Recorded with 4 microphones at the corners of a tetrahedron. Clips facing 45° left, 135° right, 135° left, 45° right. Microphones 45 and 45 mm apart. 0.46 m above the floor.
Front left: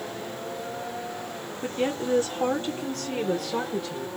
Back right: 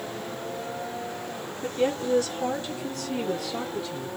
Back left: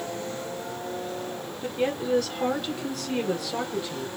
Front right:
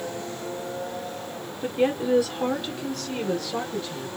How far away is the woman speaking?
About 1.3 m.